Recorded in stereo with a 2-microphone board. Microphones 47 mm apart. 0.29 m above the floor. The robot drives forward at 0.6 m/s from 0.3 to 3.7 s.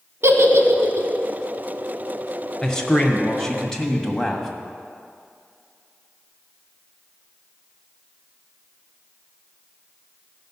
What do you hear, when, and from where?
0.2 s a giggle: 70° right (ahead or behind), 0.9 m; by 1.1 s 65° right (ahead or behind), 0.9 m
2.6 s a man speaking: 15° left (ahead or behind), 1.0 m; by 4.5 s 10° left (ahead or behind), 1.4 m